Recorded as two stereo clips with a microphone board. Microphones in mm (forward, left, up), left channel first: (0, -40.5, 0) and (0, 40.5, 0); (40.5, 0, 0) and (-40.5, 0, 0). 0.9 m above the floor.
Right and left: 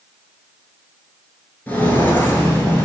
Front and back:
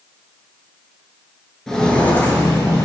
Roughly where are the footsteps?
Right.